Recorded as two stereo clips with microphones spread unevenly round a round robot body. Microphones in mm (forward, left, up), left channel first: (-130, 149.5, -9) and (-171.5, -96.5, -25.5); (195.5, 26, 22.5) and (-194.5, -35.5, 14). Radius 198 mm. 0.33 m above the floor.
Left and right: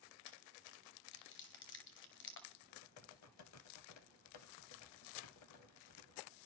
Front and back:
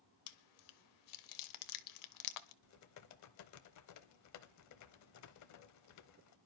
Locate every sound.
0.3 s chewing: 35° left, 0.8 m
2.6 s typing on a keyboard: 55° left, 0.8 m